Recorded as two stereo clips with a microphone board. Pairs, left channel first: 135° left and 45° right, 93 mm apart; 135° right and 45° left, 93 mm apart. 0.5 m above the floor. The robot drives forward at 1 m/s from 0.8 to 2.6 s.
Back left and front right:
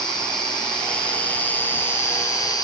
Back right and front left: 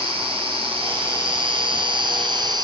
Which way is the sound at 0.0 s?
55° left.